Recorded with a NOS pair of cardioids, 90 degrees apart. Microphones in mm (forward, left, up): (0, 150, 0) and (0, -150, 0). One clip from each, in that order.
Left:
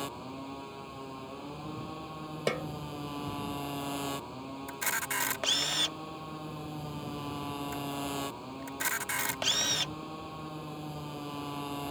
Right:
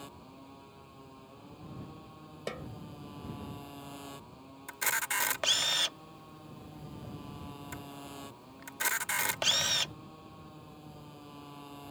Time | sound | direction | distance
0.0 | a motorcycle | 70° left | ?
2.5 | a snare drum | 55° left | ?
4.7 | a camera shutter | 10° right | ?